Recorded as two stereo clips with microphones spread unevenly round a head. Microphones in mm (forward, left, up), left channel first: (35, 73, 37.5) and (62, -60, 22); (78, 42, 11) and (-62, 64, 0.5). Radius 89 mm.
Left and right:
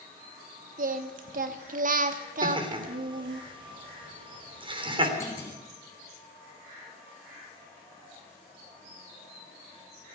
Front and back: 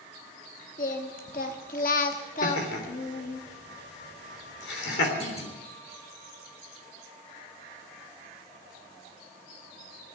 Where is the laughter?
25° right, 3.5 m.